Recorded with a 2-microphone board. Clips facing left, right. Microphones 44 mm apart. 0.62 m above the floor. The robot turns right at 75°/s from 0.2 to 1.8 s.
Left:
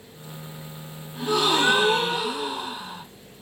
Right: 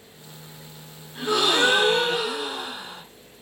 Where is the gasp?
115° right, 1.3 m; by 3.0 s 70° right, 1.3 m.